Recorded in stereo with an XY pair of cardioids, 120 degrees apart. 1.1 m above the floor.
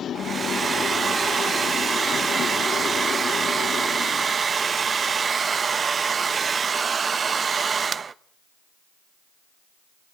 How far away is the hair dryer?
About 0.8 m.